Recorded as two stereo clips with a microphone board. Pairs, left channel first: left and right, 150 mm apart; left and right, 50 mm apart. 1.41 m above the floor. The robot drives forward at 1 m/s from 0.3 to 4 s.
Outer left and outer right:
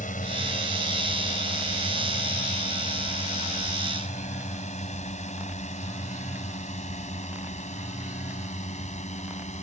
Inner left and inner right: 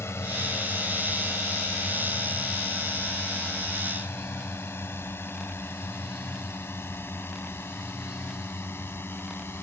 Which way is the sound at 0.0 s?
65° left (ahead or behind).